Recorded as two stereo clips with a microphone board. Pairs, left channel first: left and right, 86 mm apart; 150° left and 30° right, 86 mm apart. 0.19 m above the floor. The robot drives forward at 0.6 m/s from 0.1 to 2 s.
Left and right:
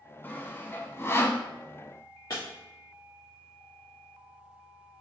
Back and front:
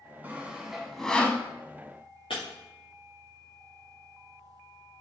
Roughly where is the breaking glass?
Behind left.